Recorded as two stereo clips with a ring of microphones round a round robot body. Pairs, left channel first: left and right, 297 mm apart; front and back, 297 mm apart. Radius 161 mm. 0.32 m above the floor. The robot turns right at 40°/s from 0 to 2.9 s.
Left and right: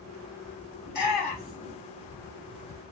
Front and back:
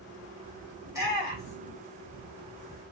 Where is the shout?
105° left, 1.7 m; by 1.8 s 140° left, 1.7 m.